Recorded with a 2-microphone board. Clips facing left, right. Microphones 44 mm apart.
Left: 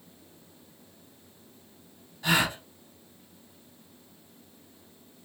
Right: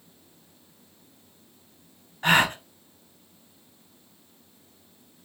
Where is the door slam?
No door slam in this recording.